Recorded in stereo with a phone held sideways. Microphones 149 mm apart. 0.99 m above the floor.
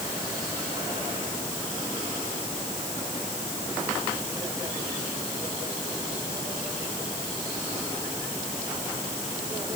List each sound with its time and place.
Only background noise.